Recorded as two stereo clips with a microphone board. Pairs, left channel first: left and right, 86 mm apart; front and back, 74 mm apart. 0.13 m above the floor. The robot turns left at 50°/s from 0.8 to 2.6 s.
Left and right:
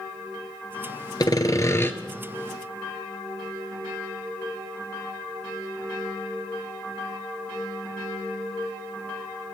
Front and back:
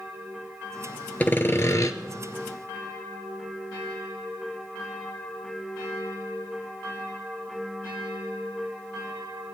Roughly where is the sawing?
Ahead left.